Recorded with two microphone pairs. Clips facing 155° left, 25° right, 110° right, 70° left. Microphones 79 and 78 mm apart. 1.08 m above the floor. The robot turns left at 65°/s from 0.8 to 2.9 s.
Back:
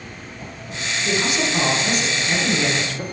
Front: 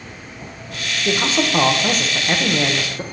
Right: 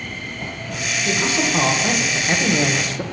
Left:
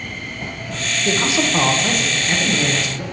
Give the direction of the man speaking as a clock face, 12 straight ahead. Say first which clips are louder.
Front 3 dB, left 2 dB; 11 o'clock.